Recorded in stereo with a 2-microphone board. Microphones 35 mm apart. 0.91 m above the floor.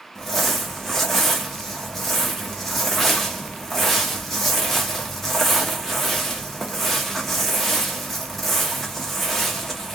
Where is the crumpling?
10° left (ahead or behind), 0.9 m.